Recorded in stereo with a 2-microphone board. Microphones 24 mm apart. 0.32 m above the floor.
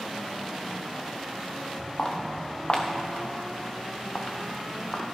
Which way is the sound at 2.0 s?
35° left (ahead or behind).